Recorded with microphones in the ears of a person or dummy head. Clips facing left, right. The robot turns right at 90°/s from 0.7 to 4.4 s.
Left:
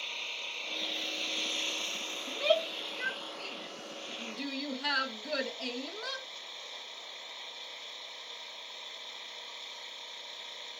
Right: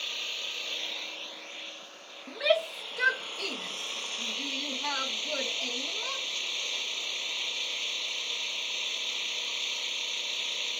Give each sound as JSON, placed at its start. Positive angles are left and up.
{"t": 0.0, "sound": "an engine running", "azimuth_deg": -15}
{"t": 2.3, "sound": "a shout", "side_deg": 0}